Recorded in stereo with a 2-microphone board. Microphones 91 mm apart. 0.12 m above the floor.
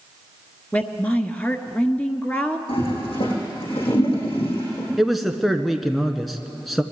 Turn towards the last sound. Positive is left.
turn(degrees=0)  # may be behind; listen again after turning